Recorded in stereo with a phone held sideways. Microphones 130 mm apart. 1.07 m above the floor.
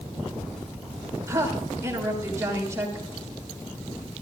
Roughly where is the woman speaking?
Right.